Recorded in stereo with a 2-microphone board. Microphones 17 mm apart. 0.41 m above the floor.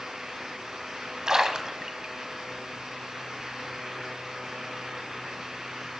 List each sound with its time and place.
1.3 s a splash: 40° right (ahead or behind), 1.3 m